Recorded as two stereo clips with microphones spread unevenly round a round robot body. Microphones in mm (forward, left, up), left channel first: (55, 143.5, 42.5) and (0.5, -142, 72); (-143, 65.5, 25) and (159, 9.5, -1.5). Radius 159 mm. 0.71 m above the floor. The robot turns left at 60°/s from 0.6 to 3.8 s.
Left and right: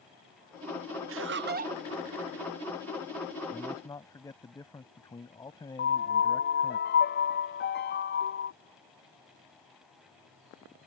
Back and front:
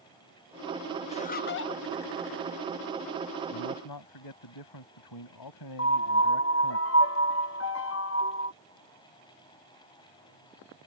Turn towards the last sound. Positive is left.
turn(degrees=125)